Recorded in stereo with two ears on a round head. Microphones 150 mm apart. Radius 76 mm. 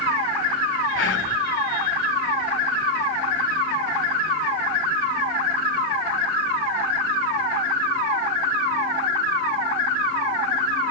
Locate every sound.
0.9 s whispering: 85° left, 3 m